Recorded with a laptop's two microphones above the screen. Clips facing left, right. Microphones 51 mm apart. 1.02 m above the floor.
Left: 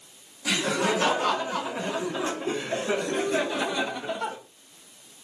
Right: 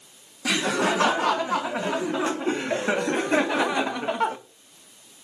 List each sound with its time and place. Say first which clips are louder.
0.5 s laughter: right 2 dB; 75° right (ahead or behind), 3.5 m; by 4.4 s 60° right (ahead or behind), 1.2 m